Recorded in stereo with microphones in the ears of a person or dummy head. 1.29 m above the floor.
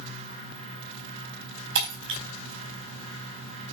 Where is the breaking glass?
70° right (ahead or behind), 4 m.